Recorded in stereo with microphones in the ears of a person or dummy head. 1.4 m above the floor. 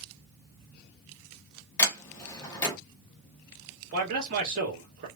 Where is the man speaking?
55° right (ahead or behind), 1.5 m.